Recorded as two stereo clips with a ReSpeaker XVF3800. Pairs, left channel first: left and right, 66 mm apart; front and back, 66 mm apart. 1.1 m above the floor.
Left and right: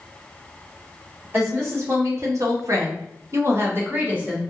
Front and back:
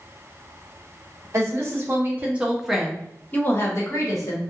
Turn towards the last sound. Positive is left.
turn(degrees=-25)